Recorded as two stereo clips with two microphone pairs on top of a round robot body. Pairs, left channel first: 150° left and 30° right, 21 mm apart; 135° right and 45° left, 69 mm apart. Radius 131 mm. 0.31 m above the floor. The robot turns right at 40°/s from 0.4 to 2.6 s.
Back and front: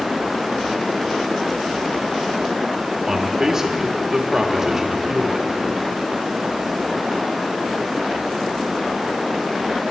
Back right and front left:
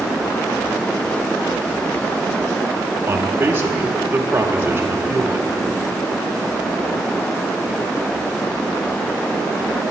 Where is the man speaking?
10° left, 1.4 m.